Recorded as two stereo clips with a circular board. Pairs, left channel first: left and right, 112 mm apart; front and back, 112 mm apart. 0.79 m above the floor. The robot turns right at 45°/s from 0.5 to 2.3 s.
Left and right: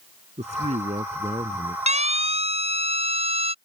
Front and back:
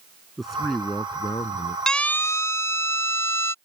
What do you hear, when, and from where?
0.4 s a man speaking: 90° right; by 1.8 s 30° right
1.9 s a siren: 85° right; by 3.5 s 65° right